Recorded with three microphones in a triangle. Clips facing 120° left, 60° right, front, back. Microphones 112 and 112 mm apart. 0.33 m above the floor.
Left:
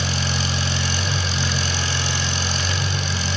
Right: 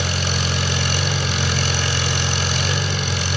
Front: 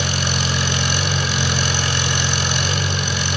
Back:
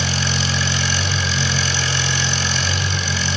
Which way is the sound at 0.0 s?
35° right.